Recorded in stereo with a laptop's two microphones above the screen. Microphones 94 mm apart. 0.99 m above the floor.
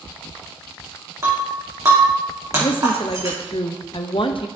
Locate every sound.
1.2 s breaking glass: 35° right (ahead or behind), 3 m
2.6 s a woman speaking: 65° left (ahead or behind), 0.7 m